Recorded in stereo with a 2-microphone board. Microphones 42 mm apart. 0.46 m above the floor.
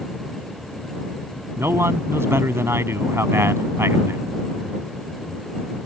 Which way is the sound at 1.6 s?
75° right (ahead or behind).